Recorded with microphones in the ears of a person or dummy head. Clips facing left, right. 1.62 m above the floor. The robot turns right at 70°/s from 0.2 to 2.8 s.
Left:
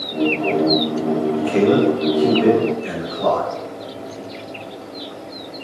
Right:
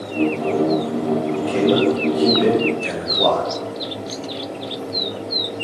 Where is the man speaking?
40° left (ahead or behind), 0.6 m; by 3.5 s 40° right (ahead or behind), 0.6 m.